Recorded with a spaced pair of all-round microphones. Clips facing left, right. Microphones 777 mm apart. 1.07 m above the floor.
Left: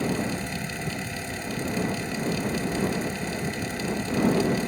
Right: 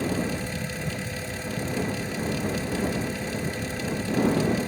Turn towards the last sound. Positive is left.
turn(degrees=-15)  # may be behind; listen again after turning